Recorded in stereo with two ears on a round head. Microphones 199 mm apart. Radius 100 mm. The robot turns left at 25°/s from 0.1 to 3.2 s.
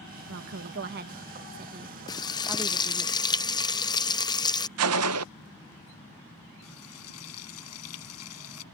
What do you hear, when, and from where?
0.3 s a woman speaking: 115° right; by 3.1 s 175° left
2.1 s frying: 20° left (ahead or behind)
4.8 s a gunshot: 75° right (ahead or behind)
6.6 s frying: 80° left